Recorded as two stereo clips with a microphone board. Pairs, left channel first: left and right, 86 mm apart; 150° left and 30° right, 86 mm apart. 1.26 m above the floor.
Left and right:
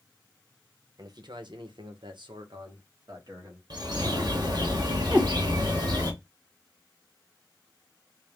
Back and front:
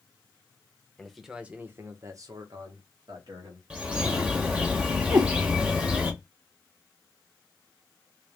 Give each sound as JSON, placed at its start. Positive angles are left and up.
{"t": 1.0, "sound": "a man speaking", "azimuth_deg": -125, "distance_m": 0.8}
{"t": 3.7, "sound": "a bird", "azimuth_deg": -100, "distance_m": 1.0}
{"t": 5.1, "sound": "a cat meowing", "azimuth_deg": -25, "distance_m": 1.1}